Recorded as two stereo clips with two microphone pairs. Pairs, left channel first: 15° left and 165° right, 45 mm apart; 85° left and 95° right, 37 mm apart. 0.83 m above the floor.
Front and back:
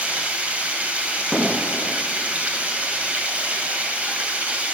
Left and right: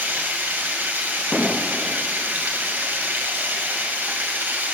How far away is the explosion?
About 0.6 m.